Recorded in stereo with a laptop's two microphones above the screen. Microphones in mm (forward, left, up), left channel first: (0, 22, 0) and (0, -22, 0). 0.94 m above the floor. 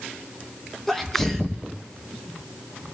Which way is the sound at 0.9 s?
5° left (ahead or behind).